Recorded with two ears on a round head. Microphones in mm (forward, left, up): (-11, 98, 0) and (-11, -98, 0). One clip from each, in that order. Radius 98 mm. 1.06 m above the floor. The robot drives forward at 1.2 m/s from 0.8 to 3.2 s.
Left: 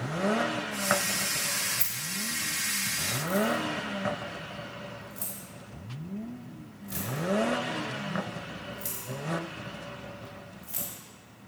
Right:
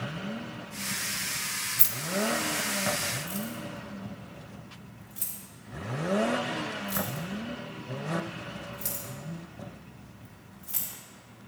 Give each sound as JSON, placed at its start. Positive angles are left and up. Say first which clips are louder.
{"t": 1.8, "sound": "keys jangling", "louder": "right 3 dB", "side_deg": -20, "distance_m": 0.7}